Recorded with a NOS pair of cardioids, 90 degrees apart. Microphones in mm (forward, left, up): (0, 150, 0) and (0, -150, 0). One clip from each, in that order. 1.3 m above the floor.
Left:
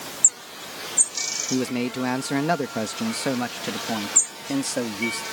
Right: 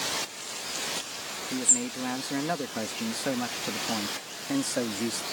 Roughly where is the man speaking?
Ahead left.